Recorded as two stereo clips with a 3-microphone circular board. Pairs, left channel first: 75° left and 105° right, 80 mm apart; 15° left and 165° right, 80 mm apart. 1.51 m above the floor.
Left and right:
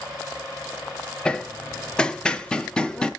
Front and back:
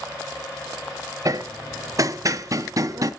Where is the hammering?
155° left, 0.6 m.